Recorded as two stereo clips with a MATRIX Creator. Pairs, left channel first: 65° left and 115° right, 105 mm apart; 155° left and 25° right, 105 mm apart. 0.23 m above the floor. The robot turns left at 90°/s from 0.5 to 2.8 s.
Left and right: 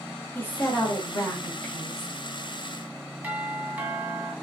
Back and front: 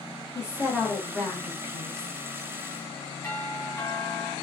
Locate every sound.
0.3 s a woman speaking: 125° left, 1.6 m; by 2.1 s 25° right, 1.6 m
3.2 s a doorbell: 165° right, 1.5 m